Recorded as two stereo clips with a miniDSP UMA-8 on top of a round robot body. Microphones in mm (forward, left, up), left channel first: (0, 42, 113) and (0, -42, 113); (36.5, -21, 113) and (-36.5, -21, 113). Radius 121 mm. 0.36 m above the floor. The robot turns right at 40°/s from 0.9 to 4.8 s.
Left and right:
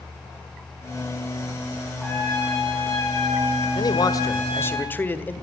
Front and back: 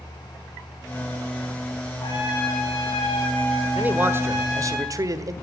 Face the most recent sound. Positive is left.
turn(degrees=155)